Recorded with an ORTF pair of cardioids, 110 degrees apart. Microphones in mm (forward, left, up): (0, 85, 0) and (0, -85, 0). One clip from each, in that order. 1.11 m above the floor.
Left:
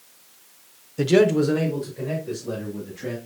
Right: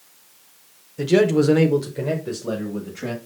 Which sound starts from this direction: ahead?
A man speaking, at 1.0 s.